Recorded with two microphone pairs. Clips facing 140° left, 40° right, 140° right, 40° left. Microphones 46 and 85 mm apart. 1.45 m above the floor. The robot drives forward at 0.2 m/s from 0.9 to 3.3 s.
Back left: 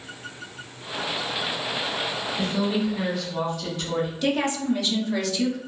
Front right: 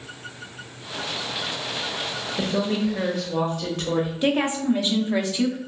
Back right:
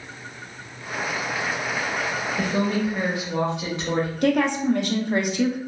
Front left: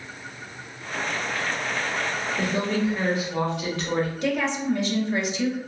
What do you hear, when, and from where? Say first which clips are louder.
2.4 s a woman speaking: front right 2 dB, back right 1 dB; 60° right, 0.9 m; by 4.1 s 70° right, 0.8 m
4.2 s a woman speaking: front right 2 dB, back right 5 dB; 105° right, 0.5 m